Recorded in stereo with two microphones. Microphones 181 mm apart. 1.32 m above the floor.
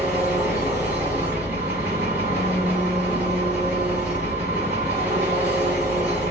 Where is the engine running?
10° right (ahead or behind), 1.4 m.